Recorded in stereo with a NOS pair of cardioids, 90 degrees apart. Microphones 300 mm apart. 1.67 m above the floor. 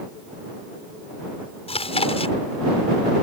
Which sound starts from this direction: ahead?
Chewing, at 1.7 s.